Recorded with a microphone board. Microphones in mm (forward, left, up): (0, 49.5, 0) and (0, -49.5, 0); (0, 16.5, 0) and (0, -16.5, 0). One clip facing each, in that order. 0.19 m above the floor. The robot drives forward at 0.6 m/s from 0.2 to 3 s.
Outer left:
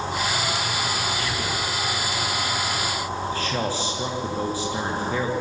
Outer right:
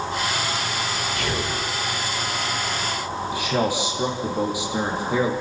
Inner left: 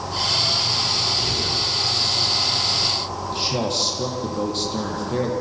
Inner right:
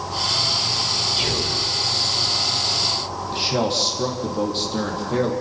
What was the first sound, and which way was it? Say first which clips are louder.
Whispering: outer right 2 dB, inner right 1 dB; 60° right (ahead or behind).